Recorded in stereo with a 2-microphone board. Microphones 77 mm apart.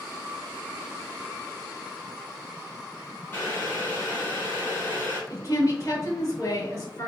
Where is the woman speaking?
40° left (ahead or behind), 1.8 m.